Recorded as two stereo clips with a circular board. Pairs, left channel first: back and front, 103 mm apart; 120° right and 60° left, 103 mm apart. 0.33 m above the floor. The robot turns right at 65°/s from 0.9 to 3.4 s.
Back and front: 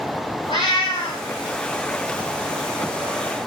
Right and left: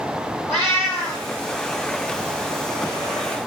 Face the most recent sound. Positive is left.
turn(degrees=-45)